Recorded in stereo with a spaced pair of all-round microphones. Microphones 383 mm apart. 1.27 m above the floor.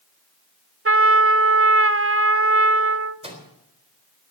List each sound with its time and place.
0.8 s a trumpet: 35° right (ahead or behind), 0.7 m
3.2 s a microwave: 15° right (ahead or behind), 3.5 m